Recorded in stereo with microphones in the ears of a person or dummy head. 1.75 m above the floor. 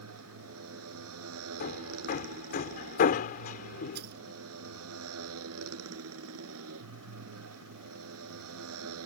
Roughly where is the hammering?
Left.